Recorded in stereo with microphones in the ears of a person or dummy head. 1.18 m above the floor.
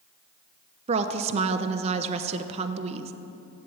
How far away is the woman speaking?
About 0.8 m.